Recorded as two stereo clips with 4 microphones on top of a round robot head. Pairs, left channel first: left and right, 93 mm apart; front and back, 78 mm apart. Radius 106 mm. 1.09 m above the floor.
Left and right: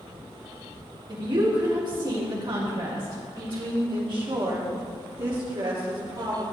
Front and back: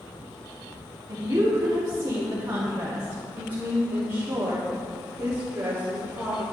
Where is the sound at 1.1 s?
130° right, 3 m; by 3.8 s 115° right, 5 m.